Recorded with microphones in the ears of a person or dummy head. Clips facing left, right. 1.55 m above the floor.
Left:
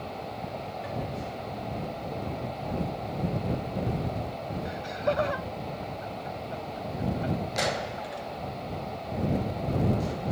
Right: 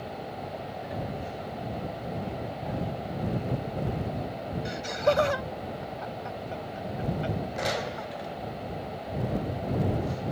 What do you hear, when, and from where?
4.7 s laughter: 70° right (ahead or behind)